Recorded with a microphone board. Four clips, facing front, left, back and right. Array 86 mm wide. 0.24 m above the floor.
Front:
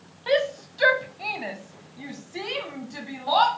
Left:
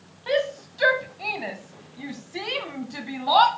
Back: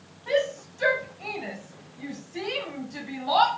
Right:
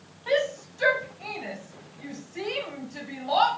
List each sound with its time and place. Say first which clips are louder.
0.3 s a shout: left 1 dB, front 2 dB; 15° left, 1.8 m; by 3.5 s 80° left, 2.5 m